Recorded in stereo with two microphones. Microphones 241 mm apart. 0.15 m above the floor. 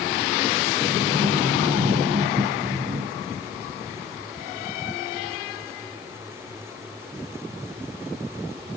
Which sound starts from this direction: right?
A sliding door, at 0.8 s.